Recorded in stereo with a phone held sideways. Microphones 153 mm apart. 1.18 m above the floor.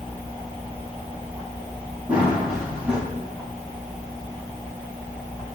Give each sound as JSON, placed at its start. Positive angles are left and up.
{"t": 2.1, "sound": "running footsteps", "side_deg": -10, "distance_m": 4.5}